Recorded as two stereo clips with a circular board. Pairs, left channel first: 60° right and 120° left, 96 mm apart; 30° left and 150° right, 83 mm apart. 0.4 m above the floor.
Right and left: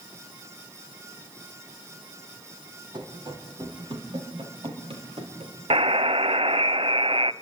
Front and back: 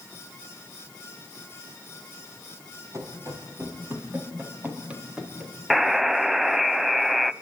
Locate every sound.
2.9 s running footsteps: 160° left, 5.5 m; by 5.9 s 125° left, 6 m
5.7 s a buzzer: 125° left, 0.8 m